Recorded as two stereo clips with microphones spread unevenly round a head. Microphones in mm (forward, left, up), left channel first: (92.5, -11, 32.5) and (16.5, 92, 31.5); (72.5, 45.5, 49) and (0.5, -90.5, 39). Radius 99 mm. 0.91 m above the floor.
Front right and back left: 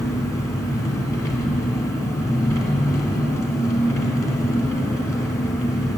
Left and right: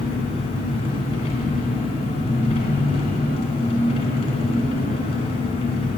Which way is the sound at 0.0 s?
15° left.